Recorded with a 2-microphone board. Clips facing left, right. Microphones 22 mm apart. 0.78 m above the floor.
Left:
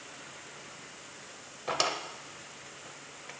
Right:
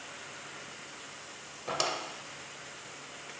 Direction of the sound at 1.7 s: 15° left (ahead or behind).